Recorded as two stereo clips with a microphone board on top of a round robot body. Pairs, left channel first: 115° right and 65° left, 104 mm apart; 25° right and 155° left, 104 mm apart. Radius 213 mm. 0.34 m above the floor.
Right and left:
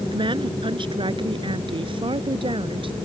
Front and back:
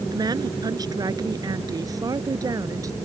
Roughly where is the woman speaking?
Left.